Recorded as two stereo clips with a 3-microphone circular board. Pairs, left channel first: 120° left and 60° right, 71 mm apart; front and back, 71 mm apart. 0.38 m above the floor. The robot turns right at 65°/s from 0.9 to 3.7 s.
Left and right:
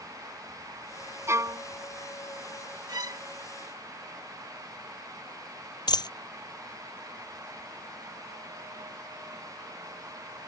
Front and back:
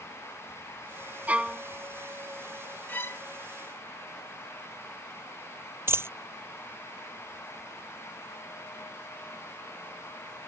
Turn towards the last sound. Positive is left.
turn(degrees=125)